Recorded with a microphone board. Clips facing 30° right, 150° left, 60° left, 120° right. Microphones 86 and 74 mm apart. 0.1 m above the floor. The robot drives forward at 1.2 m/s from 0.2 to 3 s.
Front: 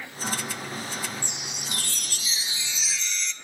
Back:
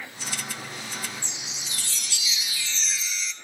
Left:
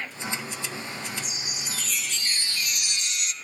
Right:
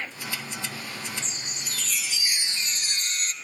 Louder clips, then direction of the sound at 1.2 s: Front 3 dB, left 1 dB; 15° right.